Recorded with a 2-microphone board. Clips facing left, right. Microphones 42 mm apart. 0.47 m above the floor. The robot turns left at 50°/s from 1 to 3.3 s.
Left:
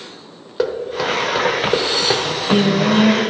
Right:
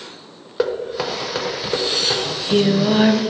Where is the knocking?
Centre (ahead or behind), 1.1 m; by 2.1 s 45° left (ahead or behind), 1.1 m.